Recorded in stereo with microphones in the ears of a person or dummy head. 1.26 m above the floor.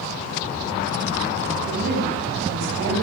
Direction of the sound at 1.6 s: 55° right (ahead or behind).